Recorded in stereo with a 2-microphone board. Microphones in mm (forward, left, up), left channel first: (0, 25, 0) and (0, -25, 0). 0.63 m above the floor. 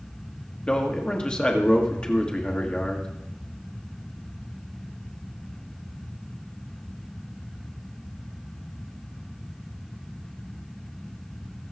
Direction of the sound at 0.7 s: 20° left (ahead or behind).